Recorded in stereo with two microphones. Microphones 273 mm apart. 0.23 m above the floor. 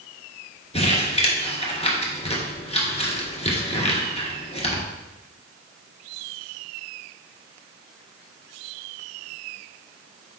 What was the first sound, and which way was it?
Crumpling, 25° left (ahead or behind).